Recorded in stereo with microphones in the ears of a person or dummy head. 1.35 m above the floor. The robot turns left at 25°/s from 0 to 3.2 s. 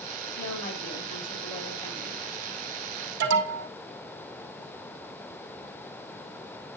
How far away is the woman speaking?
About 3.5 m.